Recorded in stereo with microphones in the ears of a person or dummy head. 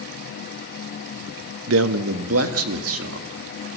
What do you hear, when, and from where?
1.7 s a man speaking: 70° right (ahead or behind), 1.0 m; by 3.3 s 80° right, 2 m